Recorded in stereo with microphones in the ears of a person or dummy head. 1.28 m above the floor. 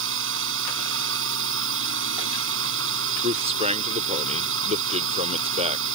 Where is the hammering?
No hammering in this recording.